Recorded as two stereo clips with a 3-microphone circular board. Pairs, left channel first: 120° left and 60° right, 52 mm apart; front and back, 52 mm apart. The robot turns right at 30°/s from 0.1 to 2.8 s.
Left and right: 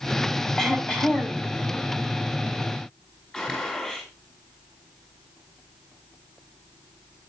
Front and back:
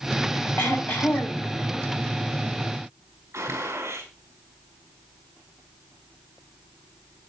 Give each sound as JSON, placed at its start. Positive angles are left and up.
{"t": 0.6, "sound": "throat clearing", "azimuth_deg": 40, "distance_m": 5.0}
{"t": 3.3, "sound": "a gunshot", "azimuth_deg": -165, "distance_m": 6.0}